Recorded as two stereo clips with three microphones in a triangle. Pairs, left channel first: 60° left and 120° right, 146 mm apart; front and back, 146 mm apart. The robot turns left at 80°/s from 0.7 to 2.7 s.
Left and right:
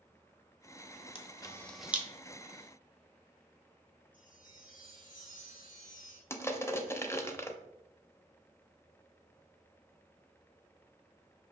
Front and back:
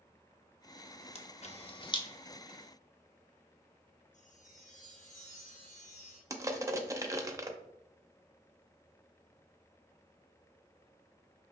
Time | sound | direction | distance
1.1 | a camera shutter | 25° left | 0.6 m
4.1 | a chime | 35° left | 1.7 m
6.3 | crushing | 120° left | 0.5 m